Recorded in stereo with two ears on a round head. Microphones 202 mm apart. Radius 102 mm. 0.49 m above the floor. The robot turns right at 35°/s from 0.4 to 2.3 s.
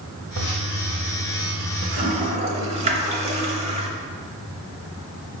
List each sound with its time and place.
0.4 s a toilet flushing: 85° right, 0.8 m; by 3.9 s 25° right (ahead or behind), 0.8 m